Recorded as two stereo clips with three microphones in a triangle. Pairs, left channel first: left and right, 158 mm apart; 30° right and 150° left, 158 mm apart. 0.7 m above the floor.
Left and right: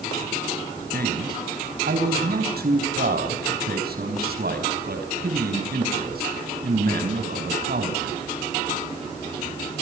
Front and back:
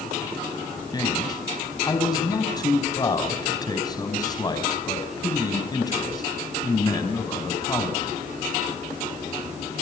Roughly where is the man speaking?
Right.